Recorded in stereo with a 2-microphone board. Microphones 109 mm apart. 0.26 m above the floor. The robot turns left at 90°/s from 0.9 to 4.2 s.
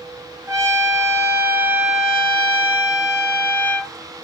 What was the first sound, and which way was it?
A trumpet, 25° right (ahead or behind).